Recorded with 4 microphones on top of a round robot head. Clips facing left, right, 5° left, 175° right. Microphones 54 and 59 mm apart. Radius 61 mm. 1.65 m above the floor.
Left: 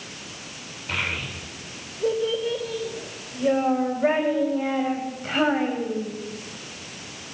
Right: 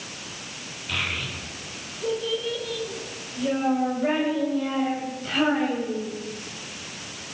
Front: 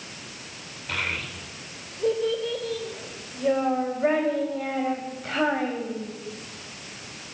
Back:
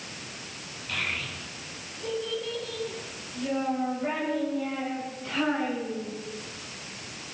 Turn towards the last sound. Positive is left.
turn(degrees=40)